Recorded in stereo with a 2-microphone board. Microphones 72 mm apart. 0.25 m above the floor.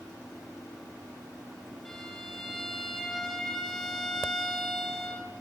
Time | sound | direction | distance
1.9 | a violin | 5° left (ahead or behind) | 5 m